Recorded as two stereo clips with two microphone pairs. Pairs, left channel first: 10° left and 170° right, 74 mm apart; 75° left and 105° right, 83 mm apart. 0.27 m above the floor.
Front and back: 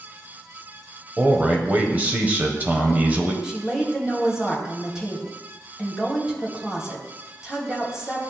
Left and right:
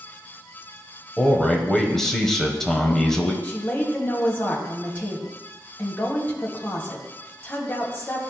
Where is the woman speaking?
115° left, 1.6 m.